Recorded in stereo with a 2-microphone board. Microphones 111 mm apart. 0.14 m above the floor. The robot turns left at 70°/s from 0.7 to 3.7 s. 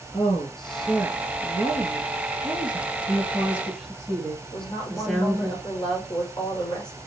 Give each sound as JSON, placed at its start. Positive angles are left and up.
{"t": 0.1, "sound": "a woman speaking", "azimuth_deg": 5, "distance_m": 2.5}
{"t": 3.1, "sound": "a woman speaking", "azimuth_deg": -140, "distance_m": 2.0}
{"t": 4.5, "sound": "a woman speaking", "side_deg": 50, "distance_m": 5.0}